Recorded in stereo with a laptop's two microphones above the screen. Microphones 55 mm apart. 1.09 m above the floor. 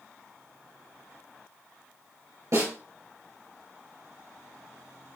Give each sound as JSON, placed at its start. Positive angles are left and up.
{"t": 2.5, "sound": "a snare drum", "side_deg": -75, "distance_m": 3.0}